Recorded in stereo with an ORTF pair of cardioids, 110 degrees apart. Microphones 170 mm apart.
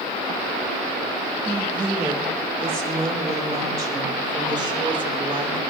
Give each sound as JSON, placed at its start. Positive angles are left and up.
{"t": 1.4, "sound": "a woman speaking", "azimuth_deg": -10, "distance_m": 5.5}